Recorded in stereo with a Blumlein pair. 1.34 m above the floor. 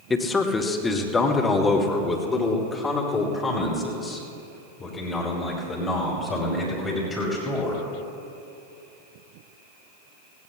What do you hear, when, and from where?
0.1 s a man speaking: 15° left, 1.4 m; by 7.8 s 20° left, 7 m